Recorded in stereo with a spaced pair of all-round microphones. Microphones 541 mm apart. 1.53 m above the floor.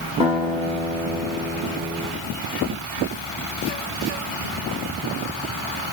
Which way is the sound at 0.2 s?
10° right (ahead or behind).